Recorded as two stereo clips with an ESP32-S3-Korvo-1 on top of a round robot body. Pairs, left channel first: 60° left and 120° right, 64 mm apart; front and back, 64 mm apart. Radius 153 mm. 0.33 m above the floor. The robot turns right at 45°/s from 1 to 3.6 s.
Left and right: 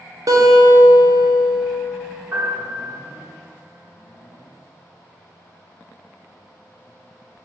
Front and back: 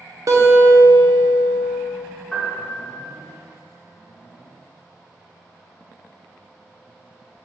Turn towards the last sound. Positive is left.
turn(degrees=-5)